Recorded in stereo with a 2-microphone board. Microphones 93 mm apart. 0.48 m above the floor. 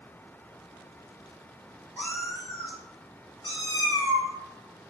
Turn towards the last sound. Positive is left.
turn(degrees=40)  # may be behind; listen again after turning